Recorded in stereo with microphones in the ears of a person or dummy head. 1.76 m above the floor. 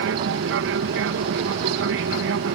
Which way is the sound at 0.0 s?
60° right (ahead or behind).